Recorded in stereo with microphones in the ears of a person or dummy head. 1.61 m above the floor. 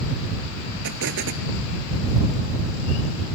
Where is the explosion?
60° right (ahead or behind).